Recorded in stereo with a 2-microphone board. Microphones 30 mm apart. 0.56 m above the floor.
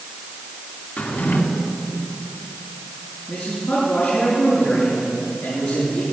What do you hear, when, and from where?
1.0 s a drawer: 85° left, 2.5 m
3.3 s a man speaking: 65° left (ahead or behind), 8 m